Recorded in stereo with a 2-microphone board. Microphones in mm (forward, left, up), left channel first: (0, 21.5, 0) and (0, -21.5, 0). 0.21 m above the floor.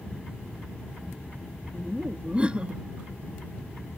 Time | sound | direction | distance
1.7 | laughter | 25° right (ahead or behind) | ?